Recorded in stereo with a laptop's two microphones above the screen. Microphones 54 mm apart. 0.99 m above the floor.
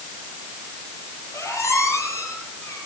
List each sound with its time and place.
1.3 s a squeak: 70° left (ahead or behind), 7 m